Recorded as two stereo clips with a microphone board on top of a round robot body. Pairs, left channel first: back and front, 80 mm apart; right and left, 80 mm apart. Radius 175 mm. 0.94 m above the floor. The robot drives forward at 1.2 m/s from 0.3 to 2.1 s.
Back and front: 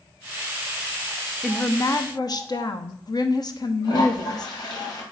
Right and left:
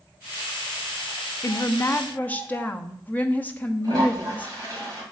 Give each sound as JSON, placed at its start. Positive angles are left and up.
{"t": 1.4, "sound": "a woman speaking", "azimuth_deg": -85, "distance_m": 0.7}
{"t": 3.8, "sound": "a toilet flushing", "azimuth_deg": 140, "distance_m": 2.0}